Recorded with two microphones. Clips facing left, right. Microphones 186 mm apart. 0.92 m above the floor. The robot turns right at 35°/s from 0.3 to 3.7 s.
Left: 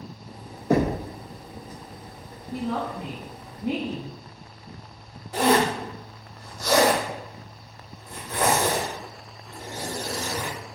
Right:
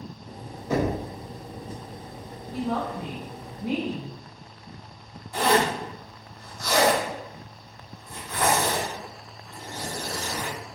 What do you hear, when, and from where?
0.7 s knocking: 50° left (ahead or behind), 0.5 m; by 1.0 s 60° left (ahead or behind), 0.5 m
2.5 s a woman speaking: 90° left, 2.0 m; by 4.1 s 130° left, 2.0 m
5.3 s a zipper: 80° left, 1.8 m